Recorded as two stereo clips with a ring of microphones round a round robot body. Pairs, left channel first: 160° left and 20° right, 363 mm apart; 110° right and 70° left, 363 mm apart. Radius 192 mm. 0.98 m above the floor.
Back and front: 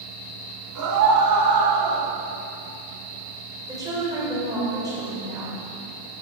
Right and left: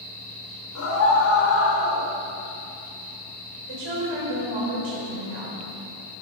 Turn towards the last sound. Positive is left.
turn(degrees=60)